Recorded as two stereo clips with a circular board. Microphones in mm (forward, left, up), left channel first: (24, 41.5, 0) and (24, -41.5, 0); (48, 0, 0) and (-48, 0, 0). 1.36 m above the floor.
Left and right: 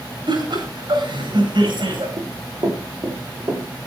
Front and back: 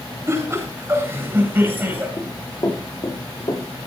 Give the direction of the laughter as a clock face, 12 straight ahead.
4 o'clock.